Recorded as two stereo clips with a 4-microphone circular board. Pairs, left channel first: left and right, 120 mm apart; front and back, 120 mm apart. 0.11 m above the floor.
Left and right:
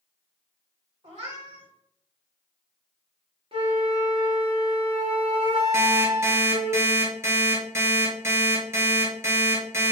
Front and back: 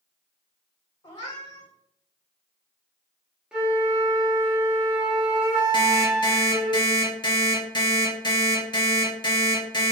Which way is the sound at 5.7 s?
30° right.